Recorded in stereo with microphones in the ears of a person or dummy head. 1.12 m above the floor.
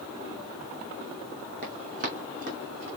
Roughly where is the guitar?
No guitar in this recording.